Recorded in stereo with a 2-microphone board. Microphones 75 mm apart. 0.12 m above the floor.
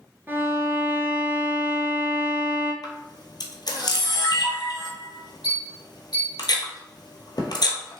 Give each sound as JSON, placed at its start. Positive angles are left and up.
{"t": 0.3, "sound": "a violin", "side_deg": -30, "distance_m": 0.5}
{"t": 2.8, "sound": "a camera shutter", "side_deg": 70, "distance_m": 0.7}